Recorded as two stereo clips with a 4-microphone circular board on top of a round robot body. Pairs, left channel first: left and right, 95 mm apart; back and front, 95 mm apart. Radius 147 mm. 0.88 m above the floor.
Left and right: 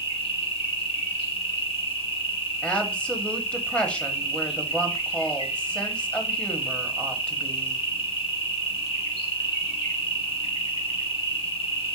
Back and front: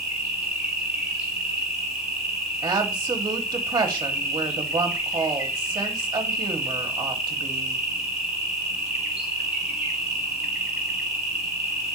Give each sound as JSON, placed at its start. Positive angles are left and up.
{"t": 0.0, "sound": "an insect", "azimuth_deg": 85, "distance_m": 3.0}
{"t": 2.6, "sound": "a woman speaking", "azimuth_deg": 20, "distance_m": 1.1}